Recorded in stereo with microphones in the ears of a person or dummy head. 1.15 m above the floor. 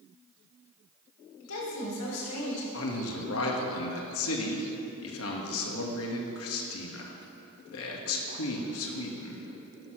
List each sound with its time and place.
1.4 s a woman speaking: 85° left, 3.5 m
2.7 s a man speaking: 75° left (ahead or behind), 1.7 m